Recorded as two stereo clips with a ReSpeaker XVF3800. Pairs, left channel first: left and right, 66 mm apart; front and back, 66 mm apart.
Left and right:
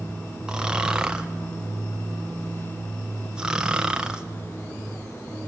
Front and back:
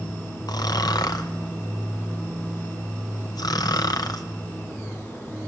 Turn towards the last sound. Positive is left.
turn(degrees=-10)